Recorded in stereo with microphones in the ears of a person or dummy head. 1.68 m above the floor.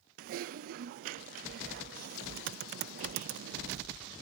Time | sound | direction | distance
0.2 | typing on a keyboard | 50° right (ahead or behind) | 0.5 m